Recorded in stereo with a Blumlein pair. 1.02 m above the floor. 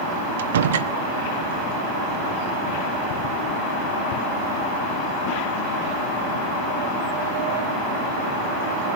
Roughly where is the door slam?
Ahead right.